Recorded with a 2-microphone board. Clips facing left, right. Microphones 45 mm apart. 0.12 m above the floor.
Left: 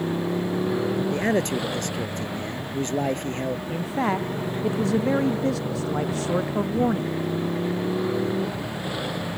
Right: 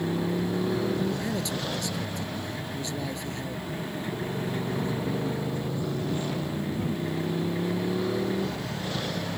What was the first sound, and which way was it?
A motorcycle, 15° left (ahead or behind).